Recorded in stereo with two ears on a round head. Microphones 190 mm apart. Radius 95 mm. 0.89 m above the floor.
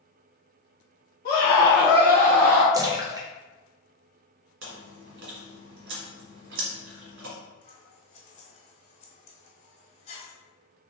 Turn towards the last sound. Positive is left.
turn(degrees=30)  # may be behind; listen again after turning